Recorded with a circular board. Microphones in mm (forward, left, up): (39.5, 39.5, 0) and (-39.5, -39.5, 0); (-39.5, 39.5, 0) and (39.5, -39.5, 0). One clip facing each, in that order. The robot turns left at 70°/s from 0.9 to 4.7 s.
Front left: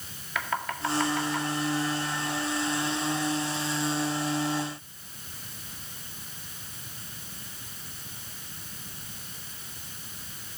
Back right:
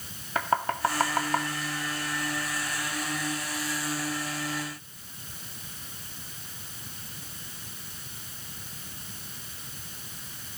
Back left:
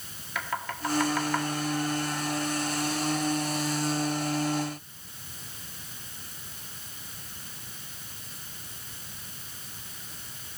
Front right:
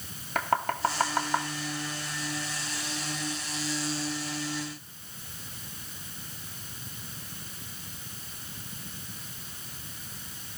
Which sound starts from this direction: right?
Knocking, at 0.3 s.